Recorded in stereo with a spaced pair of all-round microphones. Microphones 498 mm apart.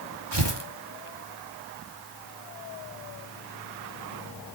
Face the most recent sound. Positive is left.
turn(degrees=-60)  # may be behind; listen again after turning